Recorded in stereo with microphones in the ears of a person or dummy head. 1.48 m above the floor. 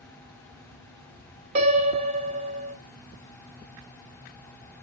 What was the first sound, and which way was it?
A piano, 40° right (ahead or behind).